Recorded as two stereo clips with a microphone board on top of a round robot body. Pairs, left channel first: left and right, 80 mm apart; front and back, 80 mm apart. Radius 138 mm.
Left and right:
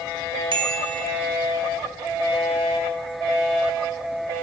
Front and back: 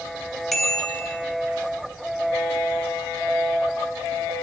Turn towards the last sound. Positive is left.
turn(degrees=-90)